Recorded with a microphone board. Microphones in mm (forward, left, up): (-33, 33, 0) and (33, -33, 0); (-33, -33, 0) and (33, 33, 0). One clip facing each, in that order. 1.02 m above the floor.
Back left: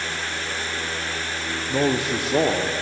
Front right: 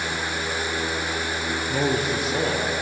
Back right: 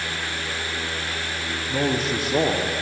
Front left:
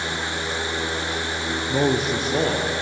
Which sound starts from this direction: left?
A man speaking, at 1.7 s.